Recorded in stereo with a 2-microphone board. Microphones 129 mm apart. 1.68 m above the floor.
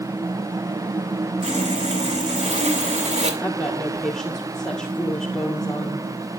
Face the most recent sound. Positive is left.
turn(degrees=5)  # may be behind; listen again after turning